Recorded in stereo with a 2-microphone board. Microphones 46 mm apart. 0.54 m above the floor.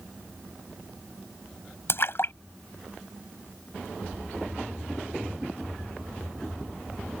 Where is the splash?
55° left (ahead or behind).